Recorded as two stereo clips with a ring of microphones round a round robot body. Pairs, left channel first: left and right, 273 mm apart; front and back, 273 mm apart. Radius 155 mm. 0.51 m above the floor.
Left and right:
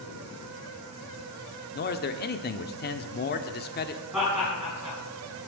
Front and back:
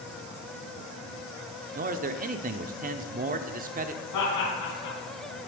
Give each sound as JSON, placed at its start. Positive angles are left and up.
{"t": 1.7, "sound": "a man speaking", "azimuth_deg": 130, "distance_m": 1.0}
{"t": 4.1, "sound": "laughter", "azimuth_deg": -5, "distance_m": 6.5}